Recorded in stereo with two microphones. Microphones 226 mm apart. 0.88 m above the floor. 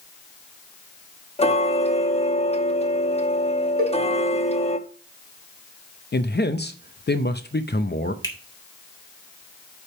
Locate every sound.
1.4 s ticking: 30° left (ahead or behind), 0.8 m
3.8 s a cowbell: 75° right (ahead or behind), 1.7 m
6.1 s a man speaking: 50° left (ahead or behind), 0.6 m
8.2 s a finger snap: 15° left (ahead or behind), 2.0 m